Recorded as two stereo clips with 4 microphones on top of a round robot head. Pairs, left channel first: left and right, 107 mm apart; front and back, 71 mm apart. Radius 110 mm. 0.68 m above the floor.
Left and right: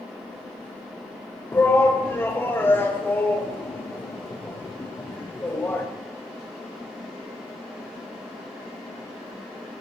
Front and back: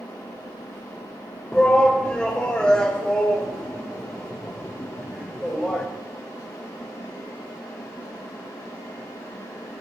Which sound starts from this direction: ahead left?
A shout, at 1.5 s.